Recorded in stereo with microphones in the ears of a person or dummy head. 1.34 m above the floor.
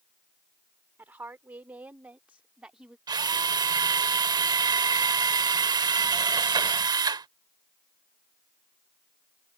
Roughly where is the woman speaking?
Centre.